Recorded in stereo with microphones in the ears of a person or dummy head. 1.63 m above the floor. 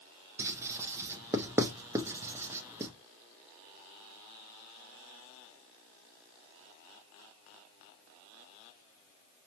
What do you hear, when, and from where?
0.4 s writing: 15° right (ahead or behind), 0.5 m